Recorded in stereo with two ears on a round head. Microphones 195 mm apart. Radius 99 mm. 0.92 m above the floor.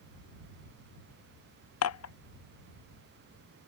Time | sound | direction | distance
1.8 | dishes clattering | 80° left | ?